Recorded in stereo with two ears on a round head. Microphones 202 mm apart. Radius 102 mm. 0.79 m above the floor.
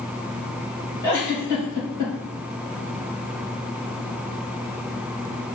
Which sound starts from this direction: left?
A giggle, at 1.0 s.